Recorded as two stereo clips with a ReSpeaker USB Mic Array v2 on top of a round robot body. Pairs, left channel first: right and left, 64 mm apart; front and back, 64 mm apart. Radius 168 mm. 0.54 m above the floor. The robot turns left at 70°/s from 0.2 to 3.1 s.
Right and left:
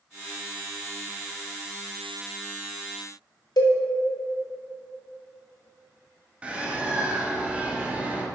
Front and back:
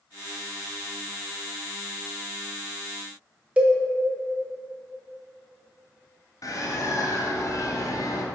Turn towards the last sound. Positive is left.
turn(degrees=20)